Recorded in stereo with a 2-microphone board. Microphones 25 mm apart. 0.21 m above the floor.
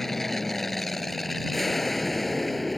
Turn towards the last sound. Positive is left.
turn(degrees=5)  # may be behind; listen again after turning